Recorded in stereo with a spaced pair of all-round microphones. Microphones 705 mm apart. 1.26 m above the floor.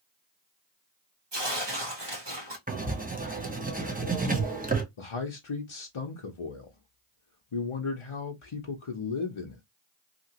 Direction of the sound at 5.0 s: 50° left (ahead or behind).